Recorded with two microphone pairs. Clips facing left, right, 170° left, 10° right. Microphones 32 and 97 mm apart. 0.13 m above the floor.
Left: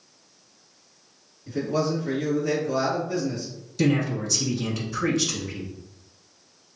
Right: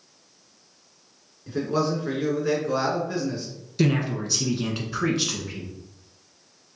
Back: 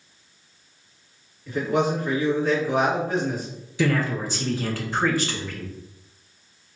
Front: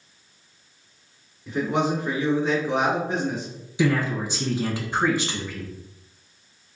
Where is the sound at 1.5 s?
60° right, 1.9 m.